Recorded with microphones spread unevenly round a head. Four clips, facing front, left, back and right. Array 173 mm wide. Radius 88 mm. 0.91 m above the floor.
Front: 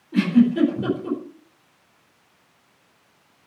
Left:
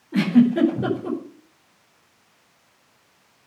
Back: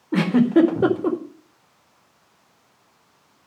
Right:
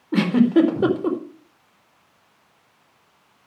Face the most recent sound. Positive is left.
turn(degrees=-145)